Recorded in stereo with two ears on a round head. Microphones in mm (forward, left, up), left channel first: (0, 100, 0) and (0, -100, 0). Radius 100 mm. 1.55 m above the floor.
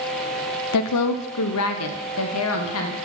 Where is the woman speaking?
80° left, 0.5 m; by 3.0 s 65° left (ahead or behind), 1.6 m.